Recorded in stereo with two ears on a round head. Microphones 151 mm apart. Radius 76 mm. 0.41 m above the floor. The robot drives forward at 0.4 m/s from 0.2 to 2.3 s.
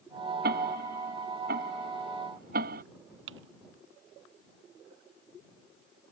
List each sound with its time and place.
0.4 s ticking: 65° right (ahead or behind); by 2.8 s 60° right (ahead or behind)
3.3 s typing on a keyboard: 85° right